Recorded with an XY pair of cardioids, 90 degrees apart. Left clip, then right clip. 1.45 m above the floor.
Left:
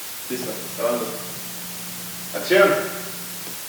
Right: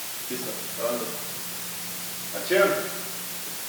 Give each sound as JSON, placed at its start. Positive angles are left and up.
{"t": 0.3, "sound": "running footsteps", "azimuth_deg": 35}